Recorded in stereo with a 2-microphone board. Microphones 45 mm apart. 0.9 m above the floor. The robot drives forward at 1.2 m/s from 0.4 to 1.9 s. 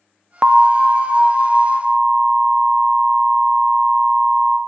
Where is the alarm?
20° right (ahead or behind), 0.5 m; by 4.6 s 5° right (ahead or behind), 2.5 m.